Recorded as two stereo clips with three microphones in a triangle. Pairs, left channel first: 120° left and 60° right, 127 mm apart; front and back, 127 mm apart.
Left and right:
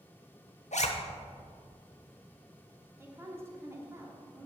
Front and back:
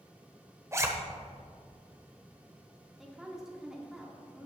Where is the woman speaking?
100° right, 1.3 m.